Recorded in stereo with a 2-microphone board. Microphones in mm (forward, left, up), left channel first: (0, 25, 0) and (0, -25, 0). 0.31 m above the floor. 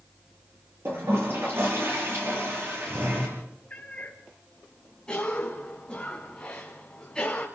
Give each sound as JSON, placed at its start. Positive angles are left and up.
{"t": 0.8, "sound": "a toilet flushing", "side_deg": -55, "distance_m": 8.5}
{"t": 3.7, "sound": "a cat meowing", "side_deg": 25, "distance_m": 3.0}
{"t": 5.1, "sound": "a cough", "side_deg": 15, "distance_m": 2.5}